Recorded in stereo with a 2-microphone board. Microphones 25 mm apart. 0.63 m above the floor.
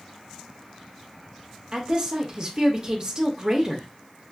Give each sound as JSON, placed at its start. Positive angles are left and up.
{"t": 1.7, "sound": "a woman speaking", "side_deg": -30, "distance_m": 0.6}